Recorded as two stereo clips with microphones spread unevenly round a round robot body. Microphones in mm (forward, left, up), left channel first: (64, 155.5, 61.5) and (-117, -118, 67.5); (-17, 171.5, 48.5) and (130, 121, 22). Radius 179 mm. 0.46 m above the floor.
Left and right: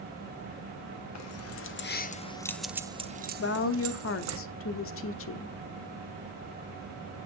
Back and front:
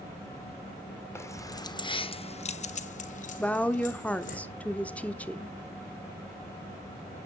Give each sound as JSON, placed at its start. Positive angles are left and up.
{"t": 1.1, "sound": "keys jangling", "azimuth_deg": 80, "distance_m": 1.3}
{"t": 3.4, "sound": "a woman speaking", "azimuth_deg": 70, "distance_m": 0.9}